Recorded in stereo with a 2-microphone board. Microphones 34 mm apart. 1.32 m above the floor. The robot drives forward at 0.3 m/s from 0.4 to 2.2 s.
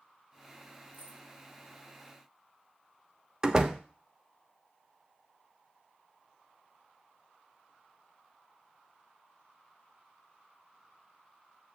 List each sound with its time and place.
0.9 s keys jangling: 50° right (ahead or behind), 3 m
3.4 s a door slam: 20° right (ahead or behind), 0.8 m